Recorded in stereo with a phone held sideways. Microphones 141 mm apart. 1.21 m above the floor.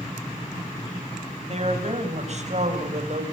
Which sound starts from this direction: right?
A woman speaking, at 1.5 s.